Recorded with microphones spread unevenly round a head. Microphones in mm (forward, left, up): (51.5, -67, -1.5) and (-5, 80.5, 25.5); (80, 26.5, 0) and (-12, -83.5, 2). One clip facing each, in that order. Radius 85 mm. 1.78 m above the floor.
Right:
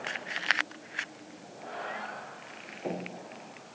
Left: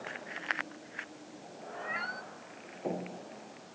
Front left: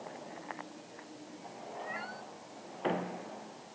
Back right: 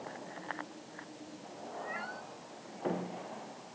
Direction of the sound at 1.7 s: 140° left.